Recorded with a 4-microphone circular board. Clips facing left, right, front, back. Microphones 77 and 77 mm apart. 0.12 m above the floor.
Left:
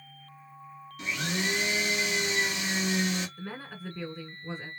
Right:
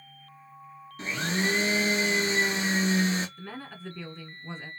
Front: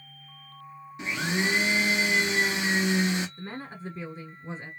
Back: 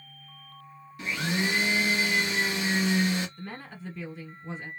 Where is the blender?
60° right, 1.0 m.